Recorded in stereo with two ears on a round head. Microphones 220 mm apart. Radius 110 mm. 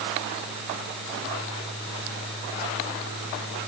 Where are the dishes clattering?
No dishes clattering in this recording.